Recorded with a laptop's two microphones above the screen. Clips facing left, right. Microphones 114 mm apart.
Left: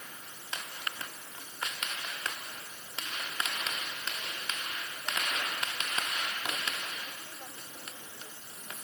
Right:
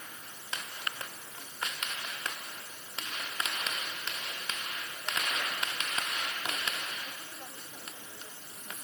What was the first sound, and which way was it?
Only background noise.